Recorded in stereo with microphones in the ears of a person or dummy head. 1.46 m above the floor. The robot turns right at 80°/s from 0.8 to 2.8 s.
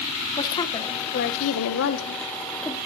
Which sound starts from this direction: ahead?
A woman speaking, at 0.4 s.